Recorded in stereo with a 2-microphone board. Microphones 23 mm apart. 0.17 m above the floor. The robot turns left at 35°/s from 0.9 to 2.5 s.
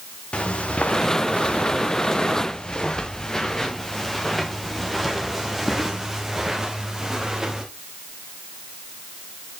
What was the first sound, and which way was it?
Footsteps, 50° left (ahead or behind).